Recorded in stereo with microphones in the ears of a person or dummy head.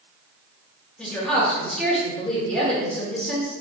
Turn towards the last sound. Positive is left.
turn(degrees=5)  # may be behind; listen again after turning